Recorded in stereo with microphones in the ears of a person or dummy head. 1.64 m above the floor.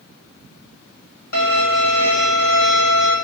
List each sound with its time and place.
1.3 s a violin: 50° left (ahead or behind), 2.0 m